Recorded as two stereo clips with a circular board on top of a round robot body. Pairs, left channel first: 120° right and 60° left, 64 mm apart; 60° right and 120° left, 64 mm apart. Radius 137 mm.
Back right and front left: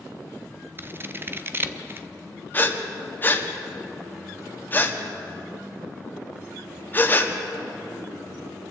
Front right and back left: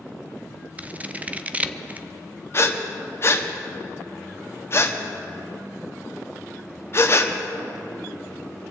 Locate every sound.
0.8 s scissors: 75° left, 0.8 m
2.5 s breathing: 75° right, 1.4 m